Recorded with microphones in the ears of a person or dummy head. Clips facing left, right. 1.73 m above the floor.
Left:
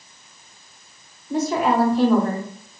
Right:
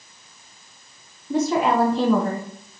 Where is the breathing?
No breathing in this recording.